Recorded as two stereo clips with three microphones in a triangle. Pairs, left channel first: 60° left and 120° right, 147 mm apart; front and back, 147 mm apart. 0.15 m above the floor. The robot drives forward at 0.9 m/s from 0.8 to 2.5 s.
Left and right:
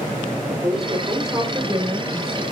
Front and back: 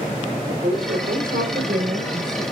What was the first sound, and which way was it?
A woman speaking, 175° left.